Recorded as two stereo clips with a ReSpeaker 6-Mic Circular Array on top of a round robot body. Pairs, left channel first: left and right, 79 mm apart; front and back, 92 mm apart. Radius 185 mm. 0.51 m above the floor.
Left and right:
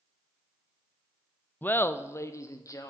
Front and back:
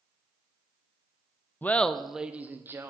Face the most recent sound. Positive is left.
turn(degrees=125)